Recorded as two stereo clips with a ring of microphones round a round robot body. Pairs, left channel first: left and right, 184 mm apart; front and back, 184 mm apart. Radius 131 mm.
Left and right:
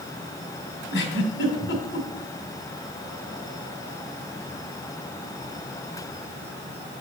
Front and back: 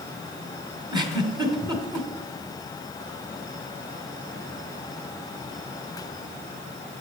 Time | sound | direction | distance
0.9 | a giggle | 115° left | 2 m